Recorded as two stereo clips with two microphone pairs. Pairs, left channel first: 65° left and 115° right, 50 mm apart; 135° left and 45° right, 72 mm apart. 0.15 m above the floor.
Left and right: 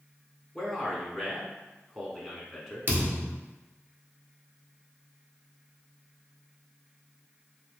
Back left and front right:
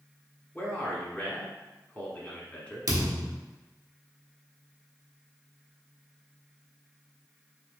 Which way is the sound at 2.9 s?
70° right.